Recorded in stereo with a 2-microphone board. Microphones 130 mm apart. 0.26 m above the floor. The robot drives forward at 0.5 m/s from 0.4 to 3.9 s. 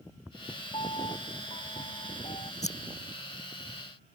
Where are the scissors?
60° left (ahead or behind).